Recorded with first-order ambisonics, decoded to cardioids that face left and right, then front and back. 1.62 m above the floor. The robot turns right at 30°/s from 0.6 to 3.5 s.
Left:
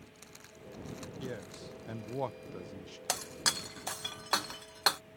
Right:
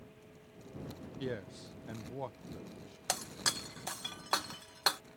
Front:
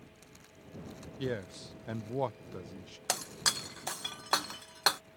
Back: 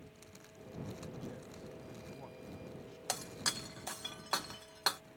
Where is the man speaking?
10° right; by 3.0 s 40° left.